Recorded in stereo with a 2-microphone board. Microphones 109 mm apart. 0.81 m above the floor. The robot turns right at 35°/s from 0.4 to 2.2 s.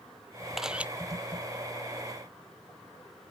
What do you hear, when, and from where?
0.6 s a camera shutter: 5° right (ahead or behind); by 0.9 s 15° right (ahead or behind)